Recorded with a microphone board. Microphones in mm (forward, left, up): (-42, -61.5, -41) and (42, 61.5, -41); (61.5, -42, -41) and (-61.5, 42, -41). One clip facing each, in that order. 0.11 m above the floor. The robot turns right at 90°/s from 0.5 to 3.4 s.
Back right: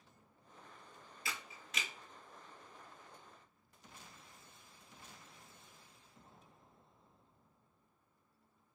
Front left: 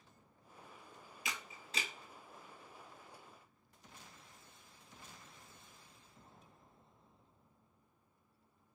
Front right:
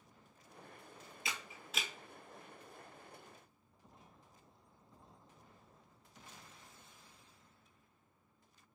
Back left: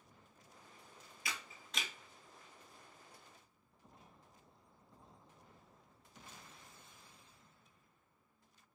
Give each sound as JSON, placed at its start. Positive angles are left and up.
{"t": 1.2, "sound": "a camera shutter", "azimuth_deg": 0, "distance_m": 0.5}